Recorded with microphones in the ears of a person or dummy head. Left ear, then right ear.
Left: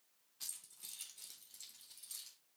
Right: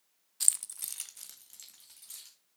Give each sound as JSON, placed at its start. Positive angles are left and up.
{"t": 0.4, "sound": "keys jangling", "side_deg": -35, "distance_m": 0.5}